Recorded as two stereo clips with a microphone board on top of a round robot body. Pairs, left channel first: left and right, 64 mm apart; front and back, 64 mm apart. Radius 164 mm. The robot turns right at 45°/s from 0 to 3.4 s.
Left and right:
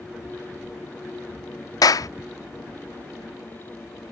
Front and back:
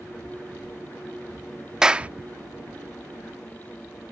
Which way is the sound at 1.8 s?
100° left.